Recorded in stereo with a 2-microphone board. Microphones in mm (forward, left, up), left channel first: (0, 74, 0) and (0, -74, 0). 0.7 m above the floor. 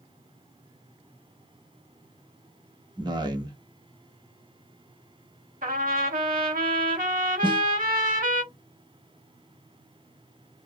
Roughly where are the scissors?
I don't hear scissors.